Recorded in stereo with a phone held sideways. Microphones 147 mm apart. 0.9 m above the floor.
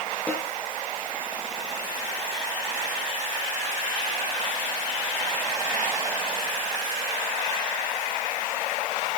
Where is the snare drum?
10° left (ahead or behind), 6 m.